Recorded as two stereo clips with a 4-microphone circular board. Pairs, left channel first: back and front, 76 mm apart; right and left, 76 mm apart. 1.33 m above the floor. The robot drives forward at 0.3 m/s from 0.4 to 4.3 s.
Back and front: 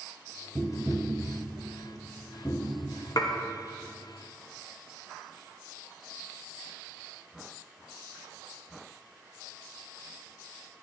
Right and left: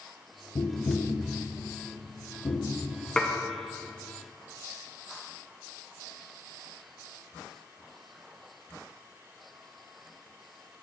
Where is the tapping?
85° right, 0.8 m; by 2.8 s 135° right, 1.0 m.